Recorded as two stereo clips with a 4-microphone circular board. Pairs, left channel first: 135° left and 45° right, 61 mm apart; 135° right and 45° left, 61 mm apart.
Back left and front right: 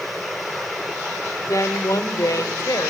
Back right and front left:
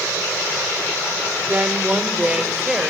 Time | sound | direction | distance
1.5 | a woman speaking | 110° left | 2 m